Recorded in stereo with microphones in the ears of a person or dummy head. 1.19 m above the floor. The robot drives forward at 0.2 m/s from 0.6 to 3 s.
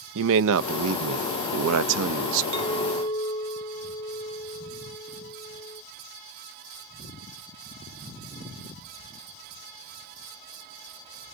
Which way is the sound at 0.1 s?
70° right (ahead or behind).